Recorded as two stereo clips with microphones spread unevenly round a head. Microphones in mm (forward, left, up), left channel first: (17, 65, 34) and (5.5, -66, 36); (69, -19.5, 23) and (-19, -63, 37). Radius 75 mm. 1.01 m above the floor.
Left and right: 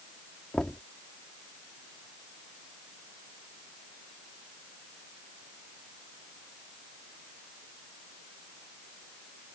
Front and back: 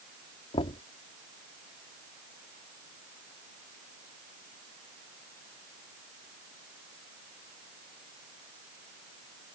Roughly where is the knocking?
Ahead.